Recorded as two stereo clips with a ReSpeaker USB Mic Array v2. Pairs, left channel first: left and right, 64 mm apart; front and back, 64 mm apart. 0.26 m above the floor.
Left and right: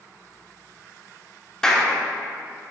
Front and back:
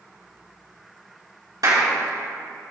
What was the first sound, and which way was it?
A clap, 170° left.